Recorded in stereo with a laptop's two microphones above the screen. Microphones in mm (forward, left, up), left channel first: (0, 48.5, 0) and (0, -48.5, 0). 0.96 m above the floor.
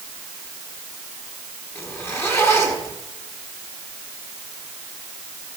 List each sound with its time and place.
1.8 s a zipper: 25° left (ahead or behind), 6 m